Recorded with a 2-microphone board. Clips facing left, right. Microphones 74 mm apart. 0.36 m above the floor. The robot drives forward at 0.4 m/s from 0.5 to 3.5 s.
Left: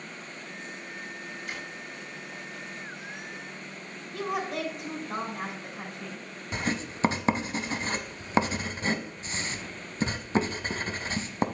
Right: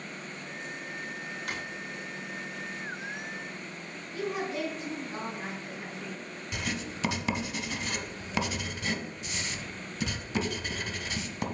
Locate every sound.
1.5 s a drawer: 65° right (ahead or behind), 2.5 m
4.1 s a woman speaking: 65° left (ahead or behind), 3 m
6.5 s writing: 35° left (ahead or behind), 0.9 m